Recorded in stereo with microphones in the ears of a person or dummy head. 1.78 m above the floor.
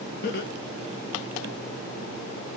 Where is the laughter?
65° left (ahead or behind), 0.6 m.